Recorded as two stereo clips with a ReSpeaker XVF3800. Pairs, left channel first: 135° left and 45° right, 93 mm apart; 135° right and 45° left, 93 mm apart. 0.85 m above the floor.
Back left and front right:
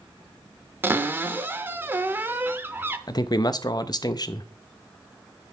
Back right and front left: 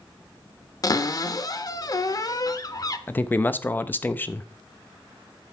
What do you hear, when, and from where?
0.8 s a cupboard door: 105° right, 0.6 m
3.1 s a man speaking: 160° left, 0.5 m